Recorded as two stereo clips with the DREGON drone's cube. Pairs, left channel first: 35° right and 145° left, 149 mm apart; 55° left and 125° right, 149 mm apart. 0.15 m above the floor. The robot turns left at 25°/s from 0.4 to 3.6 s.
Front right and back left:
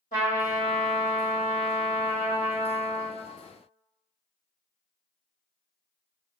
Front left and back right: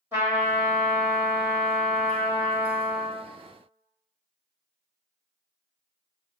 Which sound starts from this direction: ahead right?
A trumpet, at 0.1 s.